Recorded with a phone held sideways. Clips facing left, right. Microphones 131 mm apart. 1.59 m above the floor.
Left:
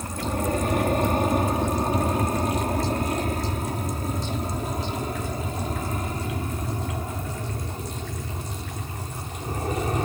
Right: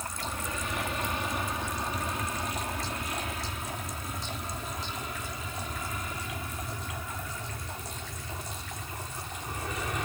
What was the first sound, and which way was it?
An aircraft, 50° left (ahead or behind).